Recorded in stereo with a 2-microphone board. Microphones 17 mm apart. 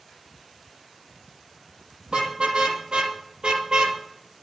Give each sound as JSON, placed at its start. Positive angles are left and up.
{"t": 2.1, "sound": "a car horn", "side_deg": -85, "distance_m": 5.0}